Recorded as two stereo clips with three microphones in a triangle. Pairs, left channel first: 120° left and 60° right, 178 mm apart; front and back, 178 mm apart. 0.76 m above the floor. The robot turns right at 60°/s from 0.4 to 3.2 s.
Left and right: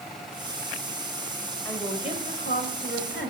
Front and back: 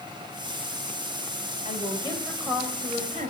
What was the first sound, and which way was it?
A woman speaking, 45° left.